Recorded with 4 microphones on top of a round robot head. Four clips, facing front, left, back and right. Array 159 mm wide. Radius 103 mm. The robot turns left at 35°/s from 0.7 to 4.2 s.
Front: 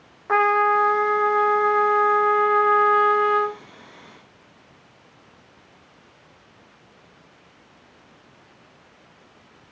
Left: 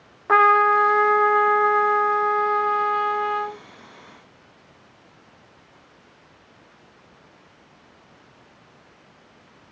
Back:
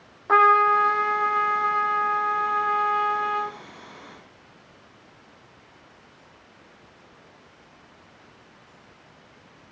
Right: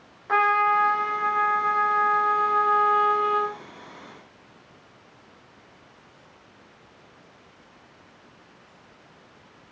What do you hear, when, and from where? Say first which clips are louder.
0.3 s a trumpet: left 5 dB, back 1 dB; 95° left, 0.5 m; by 3.6 s 5° right, 0.5 m